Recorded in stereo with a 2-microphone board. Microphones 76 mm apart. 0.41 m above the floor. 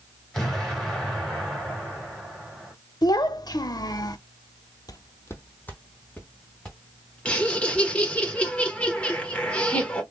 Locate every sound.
0.3 s an explosion: 5° left (ahead or behind), 2.5 m
3.0 s a child speaking: 60° left (ahead or behind), 0.7 m
4.9 s footsteps: 55° left (ahead or behind), 0.6 m; by 7.9 s 5° left (ahead or behind), 3.5 m
7.2 s laughter: 15° left (ahead or behind), 1.4 m